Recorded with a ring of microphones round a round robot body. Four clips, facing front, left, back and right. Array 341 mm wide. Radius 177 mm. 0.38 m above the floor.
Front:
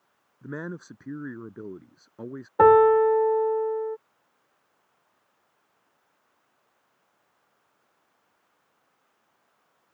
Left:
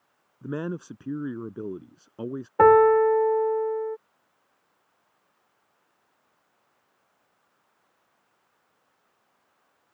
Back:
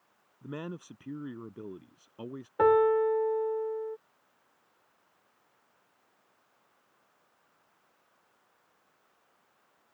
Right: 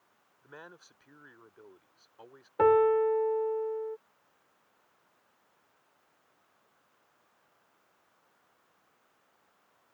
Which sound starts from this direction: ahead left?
A piano, at 2.6 s.